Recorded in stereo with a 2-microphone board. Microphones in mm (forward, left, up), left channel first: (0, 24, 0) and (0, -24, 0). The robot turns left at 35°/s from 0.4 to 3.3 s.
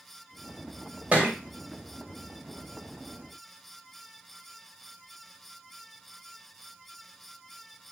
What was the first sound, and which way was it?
A thud, 25° right (ahead or behind).